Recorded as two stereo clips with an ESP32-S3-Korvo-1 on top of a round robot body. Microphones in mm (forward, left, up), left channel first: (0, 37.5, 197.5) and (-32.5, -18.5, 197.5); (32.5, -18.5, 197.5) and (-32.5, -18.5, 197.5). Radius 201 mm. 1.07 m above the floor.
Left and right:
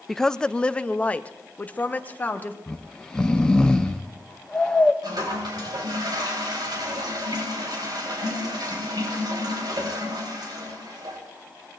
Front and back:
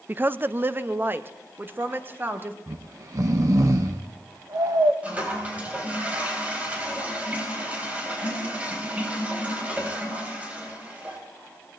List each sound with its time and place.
0.1 s a woman speaking: 145° left, 0.6 m; by 2.6 s 125° left, 1.7 m
2.7 s snoring: 135° left, 0.5 m
5.0 s a toilet flushing: 110° right, 4 m